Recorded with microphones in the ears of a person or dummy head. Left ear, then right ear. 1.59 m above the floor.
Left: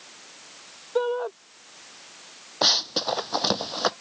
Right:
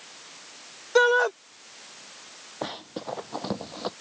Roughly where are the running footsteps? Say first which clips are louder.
Left 13 dB; left.